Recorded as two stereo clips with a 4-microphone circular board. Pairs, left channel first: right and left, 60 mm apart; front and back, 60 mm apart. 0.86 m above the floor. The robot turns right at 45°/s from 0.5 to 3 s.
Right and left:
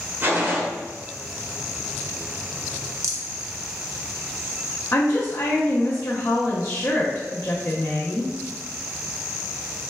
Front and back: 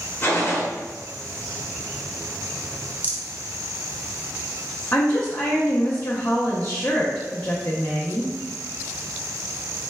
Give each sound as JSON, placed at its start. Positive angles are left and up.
{"t": 0.2, "sound": "a gunshot", "azimuth_deg": 35, "distance_m": 0.9}
{"t": 3.0, "sound": "a rattle", "azimuth_deg": 115, "distance_m": 0.6}
{"t": 4.9, "sound": "a woman speaking", "azimuth_deg": -60, "distance_m": 0.7}